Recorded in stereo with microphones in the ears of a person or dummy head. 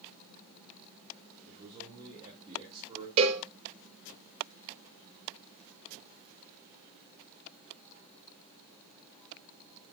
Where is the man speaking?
30° right (ahead or behind), 2.5 m.